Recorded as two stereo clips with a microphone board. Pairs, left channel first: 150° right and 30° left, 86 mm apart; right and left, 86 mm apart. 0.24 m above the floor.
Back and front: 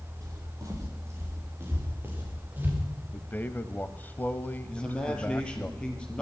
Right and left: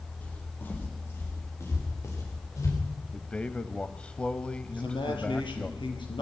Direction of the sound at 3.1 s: 145° right.